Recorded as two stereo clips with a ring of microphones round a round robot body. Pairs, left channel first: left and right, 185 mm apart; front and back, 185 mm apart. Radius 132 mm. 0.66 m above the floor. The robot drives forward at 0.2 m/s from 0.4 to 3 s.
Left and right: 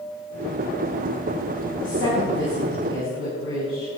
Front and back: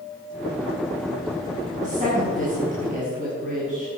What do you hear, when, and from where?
1.8 s a woman speaking: 135° left, 6.5 m